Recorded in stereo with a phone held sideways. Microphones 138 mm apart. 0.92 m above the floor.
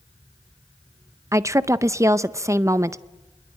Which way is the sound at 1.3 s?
20° right (ahead or behind).